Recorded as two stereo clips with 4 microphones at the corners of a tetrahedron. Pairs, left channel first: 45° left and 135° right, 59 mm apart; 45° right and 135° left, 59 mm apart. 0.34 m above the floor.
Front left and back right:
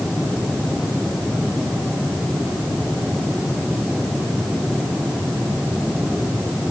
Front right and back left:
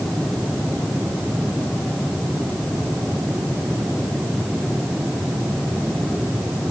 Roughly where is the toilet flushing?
I don't hear a toilet flushing.